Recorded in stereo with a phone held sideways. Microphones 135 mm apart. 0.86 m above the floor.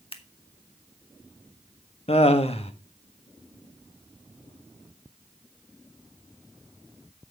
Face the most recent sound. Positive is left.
turn(degrees=50)  # may be behind; listen again after turning